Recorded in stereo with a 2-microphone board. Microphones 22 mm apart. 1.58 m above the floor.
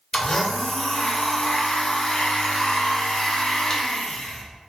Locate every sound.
0.1 s a blender: 35° left (ahead or behind), 0.6 m